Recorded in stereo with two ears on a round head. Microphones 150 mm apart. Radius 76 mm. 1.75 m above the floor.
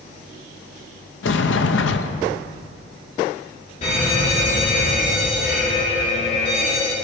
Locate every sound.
1.2 s a sliding door: 75° left (ahead or behind), 0.8 m
3.8 s an alarm: 35° left (ahead or behind), 4 m